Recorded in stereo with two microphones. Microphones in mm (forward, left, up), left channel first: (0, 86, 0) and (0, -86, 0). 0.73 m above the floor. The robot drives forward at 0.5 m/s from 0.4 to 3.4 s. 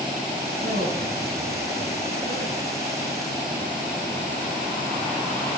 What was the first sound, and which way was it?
A man speaking, 70° right (ahead or behind).